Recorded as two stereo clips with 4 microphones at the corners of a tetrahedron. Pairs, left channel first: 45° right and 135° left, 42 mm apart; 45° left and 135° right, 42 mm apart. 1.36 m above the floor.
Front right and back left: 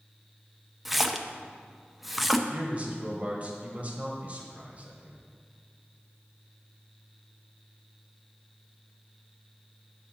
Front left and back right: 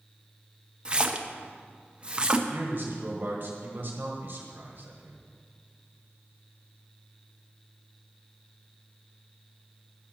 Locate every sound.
0.8 s a splash: 145° right, 0.6 m
2.5 s a man speaking: 170° right, 1.5 m